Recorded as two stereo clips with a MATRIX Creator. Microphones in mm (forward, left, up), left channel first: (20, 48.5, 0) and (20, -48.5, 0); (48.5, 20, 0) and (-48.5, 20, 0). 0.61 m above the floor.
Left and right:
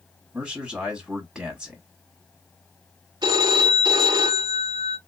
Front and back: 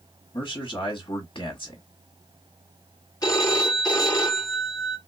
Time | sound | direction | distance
0.3 | a man speaking | 5° right | 1.4 m
3.2 | a phone ringing | 50° right | 0.9 m